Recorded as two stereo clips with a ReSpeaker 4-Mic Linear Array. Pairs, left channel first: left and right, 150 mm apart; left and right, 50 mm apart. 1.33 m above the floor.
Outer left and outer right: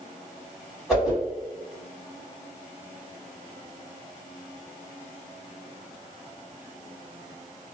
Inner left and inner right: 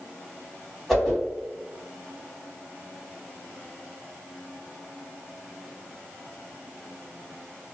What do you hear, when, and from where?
0.9 s a whoosh: centre (ahead or behind), 1.7 m